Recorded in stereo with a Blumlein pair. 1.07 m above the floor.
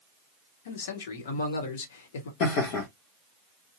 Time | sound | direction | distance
0.7 | a man speaking | 55° left | 1.1 m
2.4 | laughter | 45° left | 1.0 m